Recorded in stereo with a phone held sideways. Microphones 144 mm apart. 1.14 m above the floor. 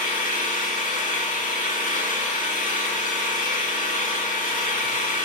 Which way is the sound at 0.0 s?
70° left (ahead or behind).